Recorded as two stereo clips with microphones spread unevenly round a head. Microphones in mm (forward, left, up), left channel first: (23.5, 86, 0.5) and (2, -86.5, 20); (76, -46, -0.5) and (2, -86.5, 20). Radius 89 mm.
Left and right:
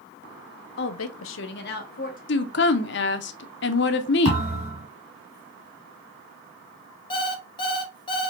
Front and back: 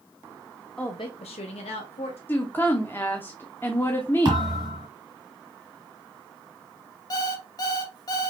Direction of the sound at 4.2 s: 140° right.